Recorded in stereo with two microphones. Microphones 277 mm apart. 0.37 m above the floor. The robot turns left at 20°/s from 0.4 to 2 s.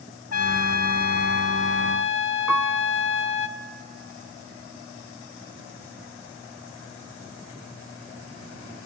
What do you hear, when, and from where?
0.3 s a trumpet: 75° left, 0.6 m; by 3.5 s 45° left, 0.6 m
2.5 s a piano: centre (ahead or behind), 0.6 m